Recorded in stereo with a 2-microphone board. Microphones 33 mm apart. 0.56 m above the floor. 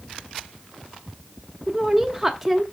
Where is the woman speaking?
10° right (ahead or behind), 0.9 m.